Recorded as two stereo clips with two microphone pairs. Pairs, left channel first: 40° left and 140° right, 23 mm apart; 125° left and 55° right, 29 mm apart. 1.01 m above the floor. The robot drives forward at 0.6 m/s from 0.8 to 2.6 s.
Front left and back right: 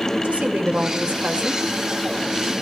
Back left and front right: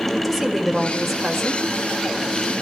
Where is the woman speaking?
150° right, 3.5 m; by 1.7 s 155° right, 4 m.